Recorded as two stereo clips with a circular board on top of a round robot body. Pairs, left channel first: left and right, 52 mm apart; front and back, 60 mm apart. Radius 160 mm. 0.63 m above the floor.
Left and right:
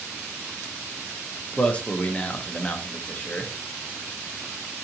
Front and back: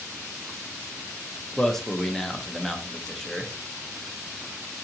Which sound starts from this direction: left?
A man speaking, at 1.6 s.